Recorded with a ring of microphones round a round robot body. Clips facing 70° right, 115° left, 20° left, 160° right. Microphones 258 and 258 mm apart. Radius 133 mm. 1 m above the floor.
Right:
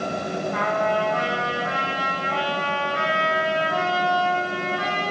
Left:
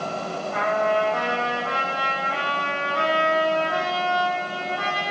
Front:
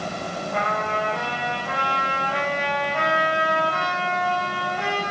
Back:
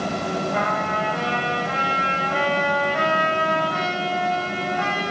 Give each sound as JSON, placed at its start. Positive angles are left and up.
{"t": 0.5, "sound": "a trumpet", "azimuth_deg": 115, "distance_m": 9.0}